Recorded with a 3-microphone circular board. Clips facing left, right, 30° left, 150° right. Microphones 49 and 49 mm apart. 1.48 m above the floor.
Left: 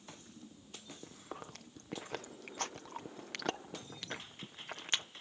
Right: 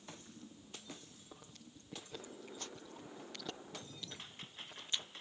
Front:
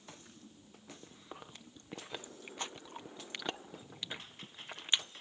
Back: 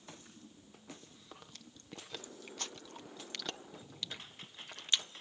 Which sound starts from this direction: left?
Chewing, at 1.0 s.